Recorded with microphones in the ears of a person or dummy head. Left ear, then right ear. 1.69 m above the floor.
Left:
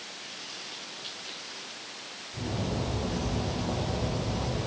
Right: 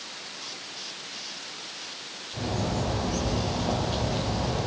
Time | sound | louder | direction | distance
2.3 | a bird | right 4 dB | 50° right (ahead or behind) | 9 m